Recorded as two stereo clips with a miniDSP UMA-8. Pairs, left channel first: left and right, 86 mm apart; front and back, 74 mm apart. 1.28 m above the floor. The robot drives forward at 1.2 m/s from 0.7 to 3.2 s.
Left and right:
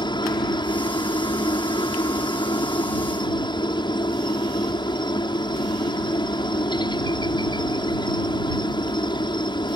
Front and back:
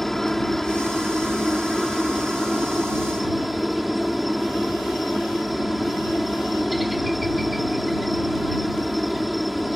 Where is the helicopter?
85° left; by 9.8 s 90° left.